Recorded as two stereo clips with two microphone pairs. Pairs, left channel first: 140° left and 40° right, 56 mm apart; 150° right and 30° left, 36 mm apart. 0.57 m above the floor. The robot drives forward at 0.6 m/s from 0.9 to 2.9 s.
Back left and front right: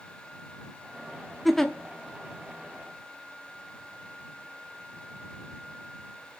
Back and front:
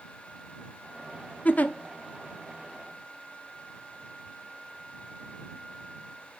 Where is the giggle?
125° right, 0.6 m; by 1.7 s 140° right, 0.7 m.